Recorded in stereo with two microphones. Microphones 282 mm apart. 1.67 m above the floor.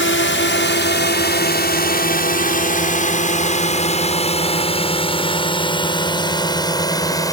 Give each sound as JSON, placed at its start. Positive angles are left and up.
{"t": 0.0, "sound": "a drone", "side_deg": 45}